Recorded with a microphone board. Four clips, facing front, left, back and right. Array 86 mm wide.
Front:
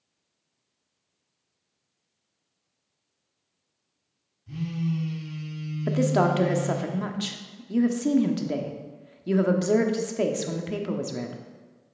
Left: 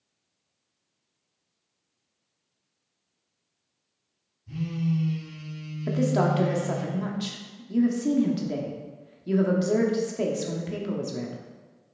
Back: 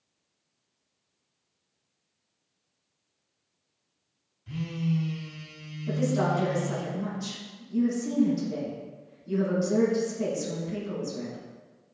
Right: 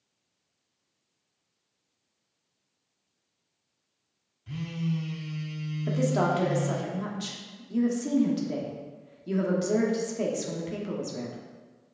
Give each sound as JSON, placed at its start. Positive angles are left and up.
{"t": 4.5, "sound": "a phone buzzing", "azimuth_deg": -120, "distance_m": 2.0}
{"t": 5.9, "sound": "a woman speaking", "azimuth_deg": 5, "distance_m": 1.0}